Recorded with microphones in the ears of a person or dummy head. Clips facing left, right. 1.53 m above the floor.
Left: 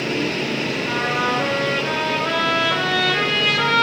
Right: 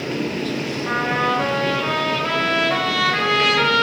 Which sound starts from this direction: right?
A trumpet, at 0.8 s.